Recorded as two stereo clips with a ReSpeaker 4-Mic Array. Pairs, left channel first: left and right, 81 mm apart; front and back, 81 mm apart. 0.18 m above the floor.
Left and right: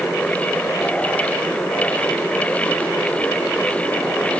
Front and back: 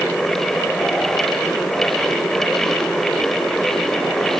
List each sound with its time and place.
Only background noise.